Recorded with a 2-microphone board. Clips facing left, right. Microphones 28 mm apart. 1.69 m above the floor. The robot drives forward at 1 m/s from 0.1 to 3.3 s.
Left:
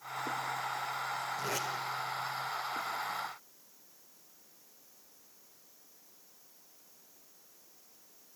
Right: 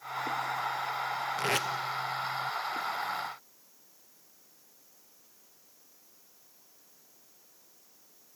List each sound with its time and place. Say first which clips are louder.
1.4 s tape being pulled: right 9 dB; 80° right, 0.8 m; by 1.7 s 65° right (ahead or behind), 0.9 m